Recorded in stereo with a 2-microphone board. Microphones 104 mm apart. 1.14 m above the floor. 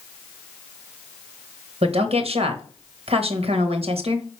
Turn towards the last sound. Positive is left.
turn(degrees=-70)  # may be behind; listen again after turning